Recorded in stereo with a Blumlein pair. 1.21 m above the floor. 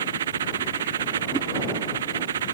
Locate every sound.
0.0 s a machine running: 65° right
1.3 s a whoosh: 15° right